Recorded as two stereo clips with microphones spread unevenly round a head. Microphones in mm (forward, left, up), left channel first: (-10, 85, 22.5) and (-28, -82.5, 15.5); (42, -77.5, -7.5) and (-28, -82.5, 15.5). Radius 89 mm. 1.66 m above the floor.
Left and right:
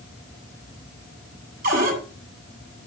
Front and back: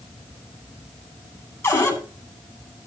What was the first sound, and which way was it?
A cupboard door, 50° right.